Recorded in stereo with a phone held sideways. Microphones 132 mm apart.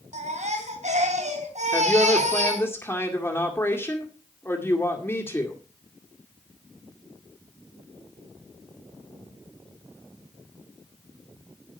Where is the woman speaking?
20° left (ahead or behind), 2 m.